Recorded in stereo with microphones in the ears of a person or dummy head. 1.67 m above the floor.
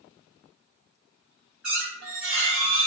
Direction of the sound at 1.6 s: 5° right (ahead or behind).